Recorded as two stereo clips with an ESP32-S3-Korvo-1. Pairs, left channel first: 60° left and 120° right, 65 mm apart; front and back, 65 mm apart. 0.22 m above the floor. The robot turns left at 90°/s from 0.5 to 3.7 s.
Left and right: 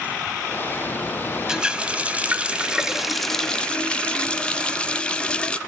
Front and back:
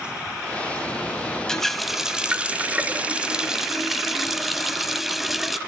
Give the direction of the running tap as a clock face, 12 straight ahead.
2 o'clock.